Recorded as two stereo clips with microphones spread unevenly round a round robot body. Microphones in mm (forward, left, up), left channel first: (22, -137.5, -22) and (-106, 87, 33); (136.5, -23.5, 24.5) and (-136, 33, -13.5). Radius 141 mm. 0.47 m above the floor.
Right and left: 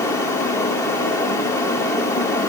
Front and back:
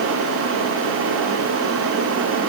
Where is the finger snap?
No finger snap in this recording.